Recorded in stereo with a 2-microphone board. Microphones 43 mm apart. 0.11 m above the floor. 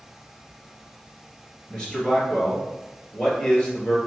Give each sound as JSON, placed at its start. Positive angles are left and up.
{"t": 1.7, "sound": "a man speaking", "side_deg": 25, "distance_m": 1.9}